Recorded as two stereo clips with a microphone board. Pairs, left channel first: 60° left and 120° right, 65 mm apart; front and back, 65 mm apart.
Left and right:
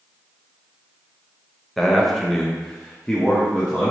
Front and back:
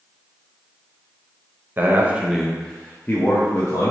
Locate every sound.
1.8 s a man speaking: 145° left, 0.6 m; by 3.9 s 20° right, 0.9 m